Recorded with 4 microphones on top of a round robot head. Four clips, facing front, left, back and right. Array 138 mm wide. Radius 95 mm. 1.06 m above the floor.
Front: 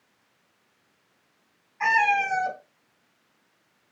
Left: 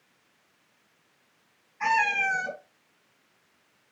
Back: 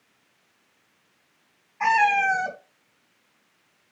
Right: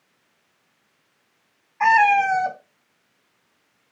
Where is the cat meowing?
100° right, 2 m.